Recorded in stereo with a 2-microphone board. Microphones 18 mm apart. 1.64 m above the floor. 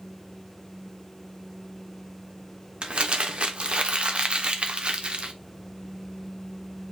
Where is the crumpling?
70° right (ahead or behind), 0.9 m.